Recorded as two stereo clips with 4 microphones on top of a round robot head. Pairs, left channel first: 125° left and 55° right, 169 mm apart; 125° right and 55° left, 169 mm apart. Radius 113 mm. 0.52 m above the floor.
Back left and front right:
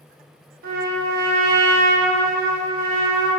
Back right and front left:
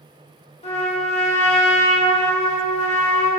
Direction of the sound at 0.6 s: 75° right.